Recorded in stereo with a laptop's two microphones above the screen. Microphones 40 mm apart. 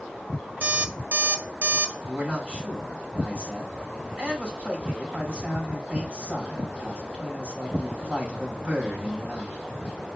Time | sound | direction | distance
0.6 | an alarm clock | 50° right (ahead or behind) | 0.6 m
2.0 | a man speaking | 25° right (ahead or behind) | 3 m